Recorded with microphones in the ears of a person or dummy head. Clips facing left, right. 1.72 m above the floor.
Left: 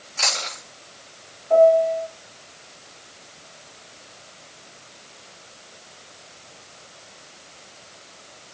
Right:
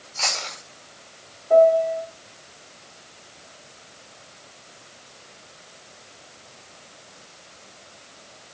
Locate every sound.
0.2 s chewing: 15° left (ahead or behind), 7 m
1.5 s a piano: 25° right (ahead or behind), 2.5 m